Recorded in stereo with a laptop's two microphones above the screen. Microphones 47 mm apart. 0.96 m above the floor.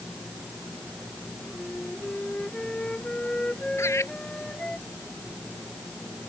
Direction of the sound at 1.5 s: 20° left (ahead or behind).